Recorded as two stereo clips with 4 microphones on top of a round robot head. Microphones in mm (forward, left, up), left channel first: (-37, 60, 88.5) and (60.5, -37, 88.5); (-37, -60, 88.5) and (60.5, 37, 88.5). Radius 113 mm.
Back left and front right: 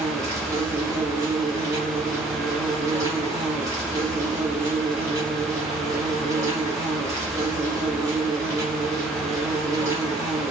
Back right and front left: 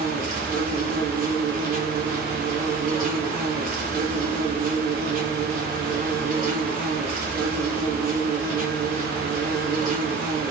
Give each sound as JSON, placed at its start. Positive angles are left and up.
{"t": 0.0, "sound": "an insect", "azimuth_deg": 25, "distance_m": 1.0}